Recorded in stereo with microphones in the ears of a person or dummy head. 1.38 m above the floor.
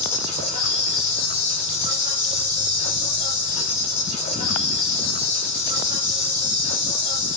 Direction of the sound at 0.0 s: 45° left (ahead or behind).